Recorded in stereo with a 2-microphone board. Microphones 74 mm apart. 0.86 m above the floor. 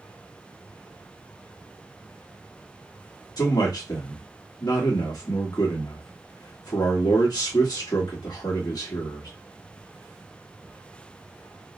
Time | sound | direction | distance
3.4 | a man speaking | 65° left (ahead or behind) | 1.1 m